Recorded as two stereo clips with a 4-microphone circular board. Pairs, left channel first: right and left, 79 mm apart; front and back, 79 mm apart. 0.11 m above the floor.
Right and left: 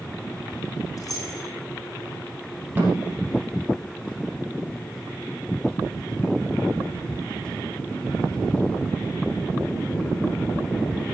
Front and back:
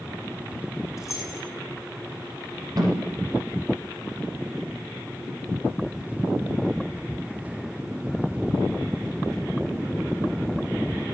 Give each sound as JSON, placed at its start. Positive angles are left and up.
{"t": 1.0, "sound": "keys jangling", "azimuth_deg": -50, "distance_m": 3.5}
{"t": 2.8, "sound": "a snare drum", "azimuth_deg": 155, "distance_m": 4.5}